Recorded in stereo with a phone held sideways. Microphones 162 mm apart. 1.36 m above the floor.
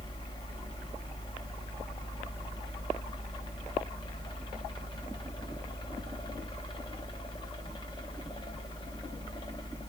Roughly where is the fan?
Left.